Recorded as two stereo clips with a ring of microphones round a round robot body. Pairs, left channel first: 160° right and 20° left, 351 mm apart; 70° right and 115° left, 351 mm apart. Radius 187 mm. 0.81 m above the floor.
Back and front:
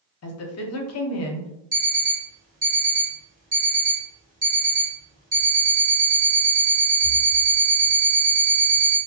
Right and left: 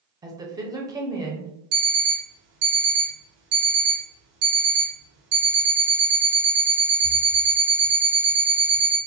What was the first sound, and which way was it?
A woman speaking, 175° right.